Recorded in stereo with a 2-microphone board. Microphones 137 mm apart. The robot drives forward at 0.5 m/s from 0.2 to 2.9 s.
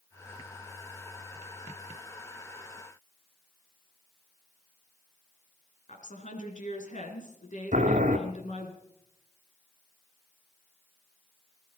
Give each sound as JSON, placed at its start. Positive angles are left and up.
{"t": 5.9, "sound": "a woman speaking", "side_deg": 60, "distance_m": 3.0}
{"t": 7.7, "sound": "boiling", "side_deg": -65, "distance_m": 1.5}